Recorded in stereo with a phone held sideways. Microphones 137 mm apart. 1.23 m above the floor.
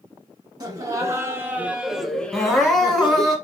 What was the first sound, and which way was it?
Laughter, 30° right (ahead or behind).